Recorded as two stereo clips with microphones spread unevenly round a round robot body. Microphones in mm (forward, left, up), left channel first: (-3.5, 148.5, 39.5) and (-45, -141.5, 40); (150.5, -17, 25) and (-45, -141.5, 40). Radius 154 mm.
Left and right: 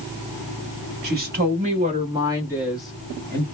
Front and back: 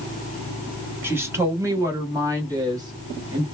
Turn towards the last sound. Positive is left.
turn(degrees=150)